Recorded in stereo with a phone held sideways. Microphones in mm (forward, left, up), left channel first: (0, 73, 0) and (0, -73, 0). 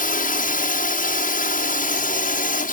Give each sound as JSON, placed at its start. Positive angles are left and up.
{"t": 0.0, "sound": "a drone", "side_deg": 70}